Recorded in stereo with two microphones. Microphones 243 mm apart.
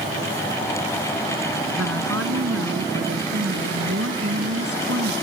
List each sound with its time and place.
1.8 s a woman speaking: 70° right (ahead or behind)